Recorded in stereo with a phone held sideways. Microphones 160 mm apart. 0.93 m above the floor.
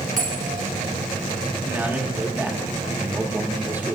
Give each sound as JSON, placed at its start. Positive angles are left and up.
{"t": 0.2, "sound": "a bell", "side_deg": -60, "distance_m": 2.5}
{"t": 1.6, "sound": "a man speaking", "side_deg": -15, "distance_m": 1.3}